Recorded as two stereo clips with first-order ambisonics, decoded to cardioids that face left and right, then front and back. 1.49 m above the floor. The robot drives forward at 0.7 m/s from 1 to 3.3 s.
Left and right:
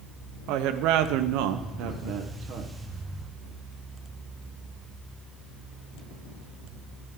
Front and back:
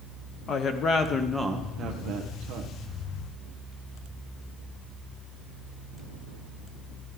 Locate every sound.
0.5 s a woman speaking: 65° right, 0.7 m; by 2.7 s 145° right, 1.1 m